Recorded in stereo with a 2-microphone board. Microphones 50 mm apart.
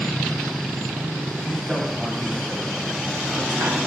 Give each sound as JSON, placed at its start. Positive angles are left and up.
{"t": 1.4, "sound": "a man speaking", "side_deg": 10, "distance_m": 1.4}